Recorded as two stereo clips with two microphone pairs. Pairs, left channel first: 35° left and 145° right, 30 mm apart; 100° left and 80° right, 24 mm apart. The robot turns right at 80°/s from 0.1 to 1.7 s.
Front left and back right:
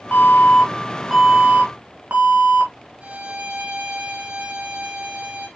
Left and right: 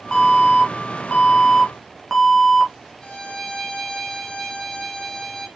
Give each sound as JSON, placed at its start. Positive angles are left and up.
{"t": 0.1, "sound": "an alarm", "azimuth_deg": 55, "distance_m": 3.5}
{"t": 3.0, "sound": "a violin", "azimuth_deg": 165, "distance_m": 2.0}